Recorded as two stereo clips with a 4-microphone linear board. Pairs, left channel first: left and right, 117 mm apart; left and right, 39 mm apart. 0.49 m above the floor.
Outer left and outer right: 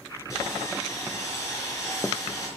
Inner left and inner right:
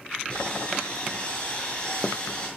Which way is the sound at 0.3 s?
30° left (ahead or behind).